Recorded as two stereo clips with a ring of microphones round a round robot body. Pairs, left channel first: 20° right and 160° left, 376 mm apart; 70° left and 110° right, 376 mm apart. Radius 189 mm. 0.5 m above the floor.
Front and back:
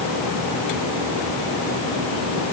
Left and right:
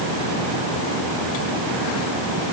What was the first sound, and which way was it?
Only background noise.